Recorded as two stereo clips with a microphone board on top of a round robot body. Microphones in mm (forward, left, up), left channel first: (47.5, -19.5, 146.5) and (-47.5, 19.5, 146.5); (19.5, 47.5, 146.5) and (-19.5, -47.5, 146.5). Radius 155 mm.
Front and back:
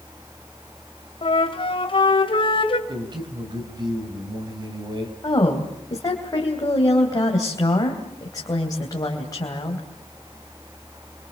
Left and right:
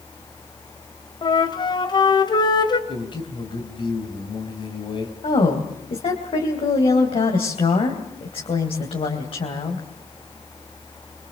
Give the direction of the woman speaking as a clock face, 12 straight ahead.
11 o'clock.